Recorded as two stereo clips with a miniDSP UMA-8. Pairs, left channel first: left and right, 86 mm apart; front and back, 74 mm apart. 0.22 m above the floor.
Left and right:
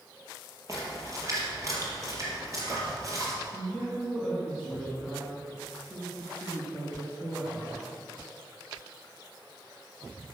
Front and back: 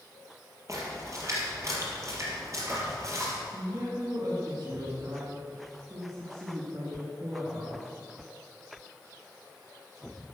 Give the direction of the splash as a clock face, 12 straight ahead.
5 o'clock.